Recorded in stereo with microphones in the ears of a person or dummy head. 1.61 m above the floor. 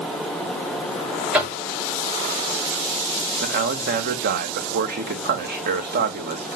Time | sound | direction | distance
1.3 | knocking | 5° right (ahead or behind) | 5 m
3.4 | a man speaking | 45° right (ahead or behind) | 2.5 m